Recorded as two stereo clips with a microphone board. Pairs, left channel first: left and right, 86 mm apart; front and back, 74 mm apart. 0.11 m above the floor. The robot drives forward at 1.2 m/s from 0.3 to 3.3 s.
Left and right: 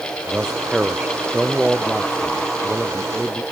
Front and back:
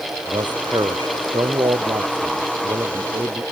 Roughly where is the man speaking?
Behind.